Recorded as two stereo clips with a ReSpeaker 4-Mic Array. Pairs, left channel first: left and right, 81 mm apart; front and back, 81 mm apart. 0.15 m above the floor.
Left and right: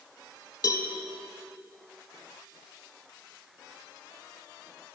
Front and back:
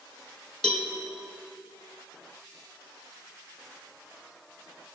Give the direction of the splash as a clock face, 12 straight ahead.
No splash in this recording.